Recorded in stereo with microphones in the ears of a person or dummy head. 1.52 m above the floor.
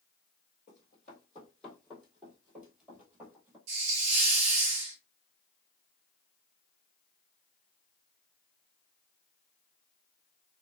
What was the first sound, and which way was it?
Running footsteps, 10° left (ahead or behind).